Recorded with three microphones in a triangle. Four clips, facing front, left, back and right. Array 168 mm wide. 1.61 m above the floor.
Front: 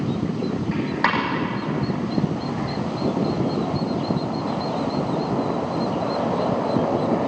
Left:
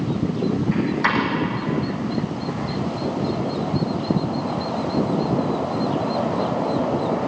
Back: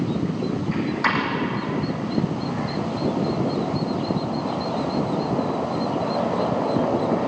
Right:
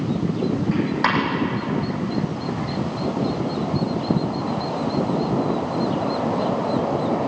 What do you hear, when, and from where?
0.7 s a dropped coin: 35° right, 7.5 m